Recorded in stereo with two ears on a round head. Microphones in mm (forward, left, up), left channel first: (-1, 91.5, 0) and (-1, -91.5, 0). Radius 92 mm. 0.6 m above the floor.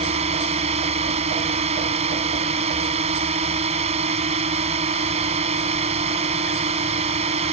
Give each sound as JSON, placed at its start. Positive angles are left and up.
{"t": 0.0, "sound": "a drone", "side_deg": -30}